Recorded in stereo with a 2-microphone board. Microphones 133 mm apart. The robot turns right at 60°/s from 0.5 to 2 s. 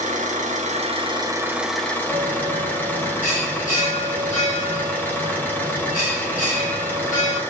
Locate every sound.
0.0 s an engine running: 75° right, 1.7 m; by 7.5 s 15° left, 1.7 m
2.1 s a bell: 85° left, 5.5 m